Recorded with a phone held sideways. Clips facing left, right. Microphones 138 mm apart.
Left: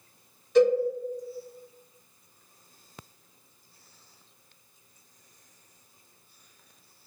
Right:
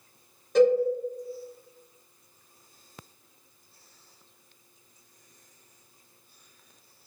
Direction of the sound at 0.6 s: 50° right (ahead or behind).